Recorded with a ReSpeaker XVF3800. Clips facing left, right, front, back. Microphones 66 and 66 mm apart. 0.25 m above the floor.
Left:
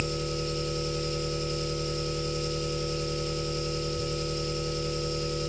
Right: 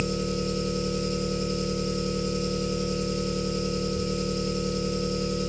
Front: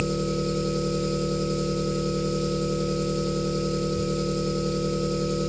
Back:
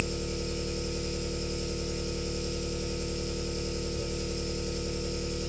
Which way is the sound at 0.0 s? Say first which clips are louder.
Right 3 dB, front 8 dB; 20° right.